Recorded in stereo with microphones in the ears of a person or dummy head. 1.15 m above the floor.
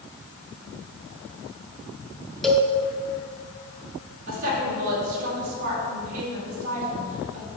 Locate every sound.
2.4 s a cowbell: centre (ahead or behind), 1.1 m
4.3 s a woman speaking: 45° right (ahead or behind), 4 m